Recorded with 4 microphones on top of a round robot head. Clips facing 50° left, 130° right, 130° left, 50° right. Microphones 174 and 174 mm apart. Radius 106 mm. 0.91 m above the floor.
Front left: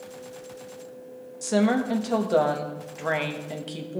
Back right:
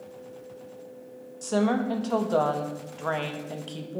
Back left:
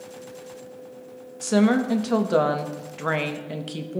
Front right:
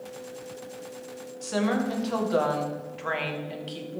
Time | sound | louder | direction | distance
1.4 | a woman speaking | front left 2 dB, back left 7 dB | 125° left | 1.2 m